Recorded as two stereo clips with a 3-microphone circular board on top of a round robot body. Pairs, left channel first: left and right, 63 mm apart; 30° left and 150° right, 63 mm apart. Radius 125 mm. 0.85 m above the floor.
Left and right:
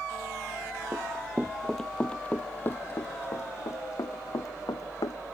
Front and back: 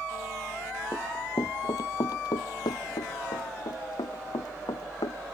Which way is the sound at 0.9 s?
25° right.